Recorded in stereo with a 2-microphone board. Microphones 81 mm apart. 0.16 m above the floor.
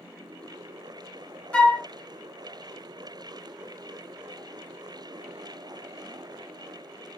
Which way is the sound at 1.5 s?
15° left (ahead or behind).